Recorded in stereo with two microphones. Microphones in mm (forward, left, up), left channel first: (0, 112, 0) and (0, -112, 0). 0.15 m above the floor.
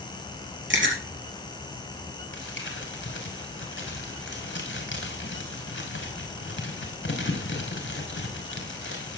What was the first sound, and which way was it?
Chewing, 65° right (ahead or behind).